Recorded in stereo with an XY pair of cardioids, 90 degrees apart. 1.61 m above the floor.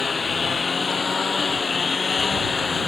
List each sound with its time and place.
0.0 s a lawn mower: 35° left; by 2.9 s 40° left